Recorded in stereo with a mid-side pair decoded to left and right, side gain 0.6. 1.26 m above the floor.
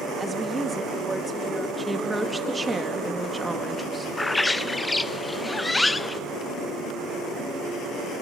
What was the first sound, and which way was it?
A woman speaking, 20° right.